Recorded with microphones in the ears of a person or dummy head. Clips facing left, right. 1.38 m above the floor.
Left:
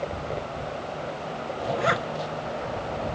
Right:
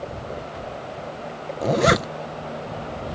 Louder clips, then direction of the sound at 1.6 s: Right 7 dB; 55° right (ahead or behind).